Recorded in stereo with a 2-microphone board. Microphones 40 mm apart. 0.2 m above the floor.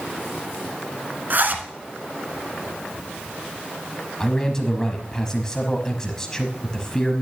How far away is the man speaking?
About 1.0 m.